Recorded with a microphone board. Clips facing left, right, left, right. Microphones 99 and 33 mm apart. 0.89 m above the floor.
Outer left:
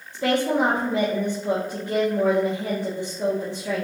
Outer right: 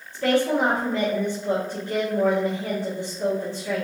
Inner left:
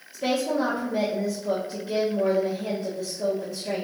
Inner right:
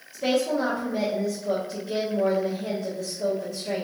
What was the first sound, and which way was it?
A woman speaking, 15° left (ahead or behind).